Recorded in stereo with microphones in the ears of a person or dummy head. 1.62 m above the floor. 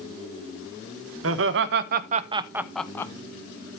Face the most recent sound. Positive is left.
turn(degrees=20)  # may be behind; listen again after turning